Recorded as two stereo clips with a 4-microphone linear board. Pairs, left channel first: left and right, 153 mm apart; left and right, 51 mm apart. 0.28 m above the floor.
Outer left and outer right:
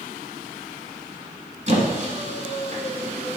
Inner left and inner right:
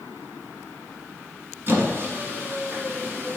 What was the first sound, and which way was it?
A squeak, 50° right (ahead or behind).